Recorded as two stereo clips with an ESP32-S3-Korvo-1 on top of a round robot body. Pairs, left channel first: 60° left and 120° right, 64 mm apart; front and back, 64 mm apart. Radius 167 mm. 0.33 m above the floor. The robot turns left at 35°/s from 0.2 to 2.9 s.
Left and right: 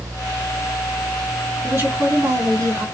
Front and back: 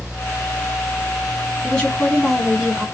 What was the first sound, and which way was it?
A woman speaking, 70° right.